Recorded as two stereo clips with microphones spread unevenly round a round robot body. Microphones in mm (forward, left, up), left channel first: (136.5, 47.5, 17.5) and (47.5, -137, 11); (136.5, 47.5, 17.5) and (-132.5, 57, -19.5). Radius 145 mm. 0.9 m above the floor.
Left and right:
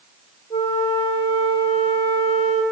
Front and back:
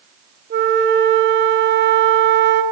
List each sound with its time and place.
0.5 s a flute: 145° left, 1.0 m